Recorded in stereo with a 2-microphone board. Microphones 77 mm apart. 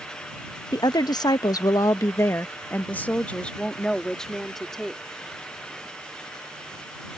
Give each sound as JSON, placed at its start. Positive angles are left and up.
{"t": 0.7, "sound": "a woman speaking", "side_deg": 60}